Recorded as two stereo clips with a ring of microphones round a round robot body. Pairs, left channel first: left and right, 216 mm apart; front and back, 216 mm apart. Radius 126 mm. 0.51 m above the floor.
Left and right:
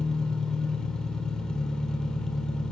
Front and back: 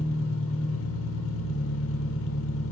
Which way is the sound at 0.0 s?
5° left.